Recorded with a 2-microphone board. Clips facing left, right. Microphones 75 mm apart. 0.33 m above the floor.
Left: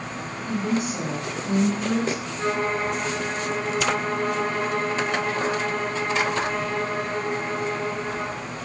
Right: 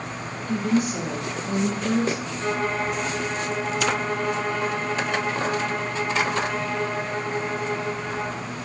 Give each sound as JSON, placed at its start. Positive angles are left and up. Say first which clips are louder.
{"t": 0.5, "sound": "a woman speaking", "louder": "right 3 dB", "side_deg": 35, "distance_m": 1.8}
{"t": 2.4, "sound": "a violin", "louder": "left 2 dB", "side_deg": 35, "distance_m": 1.7}